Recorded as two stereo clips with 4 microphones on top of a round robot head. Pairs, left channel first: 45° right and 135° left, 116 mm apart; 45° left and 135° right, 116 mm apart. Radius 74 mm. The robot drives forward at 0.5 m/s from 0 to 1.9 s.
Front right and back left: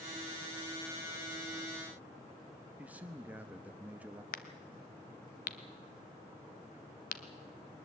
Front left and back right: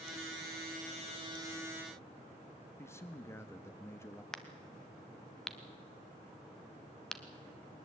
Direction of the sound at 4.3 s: 40° right.